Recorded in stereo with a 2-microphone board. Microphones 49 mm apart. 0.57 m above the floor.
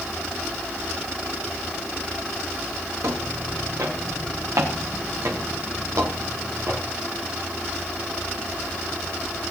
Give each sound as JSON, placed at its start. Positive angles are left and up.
{"t": 3.0, "sound": "footsteps", "side_deg": -80, "distance_m": 4.5}